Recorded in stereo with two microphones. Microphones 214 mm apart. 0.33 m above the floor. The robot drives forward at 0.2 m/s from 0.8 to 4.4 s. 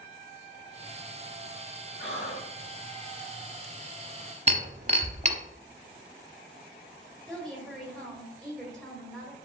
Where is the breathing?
75° left (ahead or behind), 1.2 m; by 2.5 s 70° left (ahead or behind), 1.2 m.